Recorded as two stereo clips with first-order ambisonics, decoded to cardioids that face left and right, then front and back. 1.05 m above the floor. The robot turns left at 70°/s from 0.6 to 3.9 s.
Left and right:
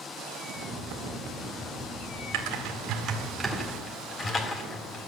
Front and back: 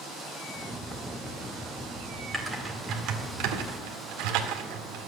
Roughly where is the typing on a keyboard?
Right.